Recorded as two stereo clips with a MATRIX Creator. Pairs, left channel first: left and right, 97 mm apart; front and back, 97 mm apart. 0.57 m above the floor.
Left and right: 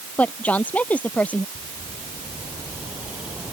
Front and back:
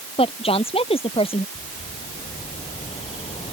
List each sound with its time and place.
0.2 s a woman speaking: 15° left
1.6 s a bird: 15° right